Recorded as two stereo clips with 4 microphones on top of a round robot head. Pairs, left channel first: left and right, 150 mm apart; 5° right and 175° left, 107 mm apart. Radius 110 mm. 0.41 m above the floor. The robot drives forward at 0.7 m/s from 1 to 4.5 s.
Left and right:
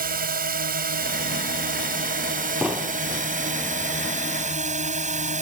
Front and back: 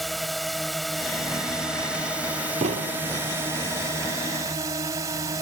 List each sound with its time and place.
0.0 s a drone: 95° right; by 5.4 s 125° right
2.6 s an explosion: 170° right